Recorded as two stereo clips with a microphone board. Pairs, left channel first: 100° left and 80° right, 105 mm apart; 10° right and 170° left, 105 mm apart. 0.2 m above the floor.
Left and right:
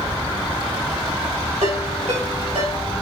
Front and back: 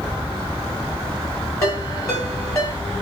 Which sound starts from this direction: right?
A ringtone, at 1.6 s.